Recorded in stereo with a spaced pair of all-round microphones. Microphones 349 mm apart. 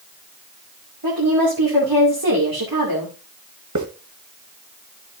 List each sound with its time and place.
1.0 s a woman speaking: 75° right (ahead or behind), 2.5 m
3.8 s a hiss: 55° right (ahead or behind), 1.3 m